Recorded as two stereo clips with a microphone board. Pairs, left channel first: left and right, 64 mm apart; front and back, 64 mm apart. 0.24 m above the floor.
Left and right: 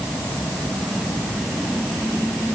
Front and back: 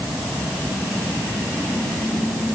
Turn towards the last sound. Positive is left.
No sound to turn to.